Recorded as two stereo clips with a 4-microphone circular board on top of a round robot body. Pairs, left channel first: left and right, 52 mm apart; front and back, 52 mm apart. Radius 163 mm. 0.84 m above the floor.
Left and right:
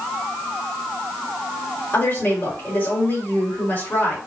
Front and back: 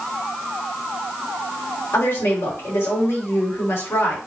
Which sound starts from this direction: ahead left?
A woman speaking, at 1.9 s.